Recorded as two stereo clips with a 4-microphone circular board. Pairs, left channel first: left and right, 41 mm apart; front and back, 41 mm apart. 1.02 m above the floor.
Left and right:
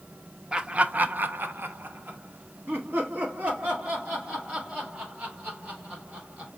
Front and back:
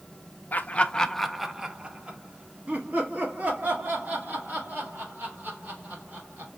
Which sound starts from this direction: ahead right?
Laughter, at 0.5 s.